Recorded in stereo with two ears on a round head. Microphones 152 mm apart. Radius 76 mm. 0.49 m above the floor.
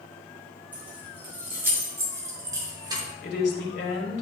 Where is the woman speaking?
65° left (ahead or behind), 2 m.